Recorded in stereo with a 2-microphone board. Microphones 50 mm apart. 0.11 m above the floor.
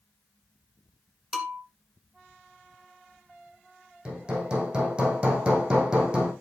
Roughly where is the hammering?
Right.